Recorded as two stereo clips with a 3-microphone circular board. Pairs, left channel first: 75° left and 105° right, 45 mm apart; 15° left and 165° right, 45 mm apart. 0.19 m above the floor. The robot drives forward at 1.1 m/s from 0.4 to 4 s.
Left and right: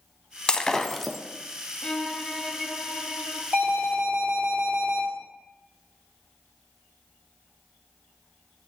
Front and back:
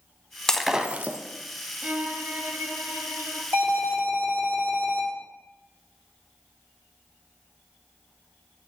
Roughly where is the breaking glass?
Ahead left.